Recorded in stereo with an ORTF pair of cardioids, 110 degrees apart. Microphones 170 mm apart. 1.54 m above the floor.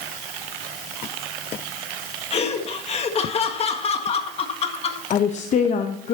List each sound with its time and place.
2.3 s laughter: 40° left, 1.7 m
5.1 s a woman speaking: 45° left, 1.0 m